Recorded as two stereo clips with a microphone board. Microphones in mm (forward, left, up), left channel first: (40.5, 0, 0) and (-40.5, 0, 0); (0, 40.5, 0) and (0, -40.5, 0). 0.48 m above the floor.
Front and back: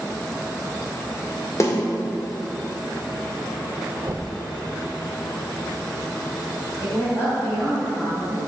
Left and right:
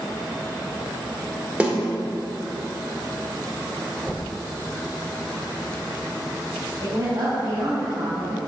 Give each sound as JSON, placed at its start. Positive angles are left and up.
{"t": 1.6, "sound": "a snare drum", "azimuth_deg": -20, "distance_m": 1.6}
{"t": 4.0, "sound": "knocking", "azimuth_deg": 155, "distance_m": 1.0}
{"t": 6.8, "sound": "a woman speaking", "azimuth_deg": -45, "distance_m": 3.0}